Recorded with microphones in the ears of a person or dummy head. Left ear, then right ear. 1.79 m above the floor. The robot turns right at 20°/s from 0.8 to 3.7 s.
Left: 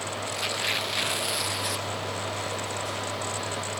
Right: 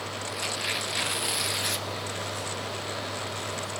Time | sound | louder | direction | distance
0.3 | tearing paper | left 2 dB | 10° left (ahead or behind) | 0.7 m